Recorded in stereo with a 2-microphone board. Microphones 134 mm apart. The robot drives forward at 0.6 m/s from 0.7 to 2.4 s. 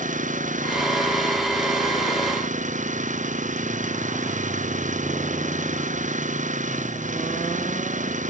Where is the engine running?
70° right (ahead or behind); by 8.3 s 65° right (ahead or behind).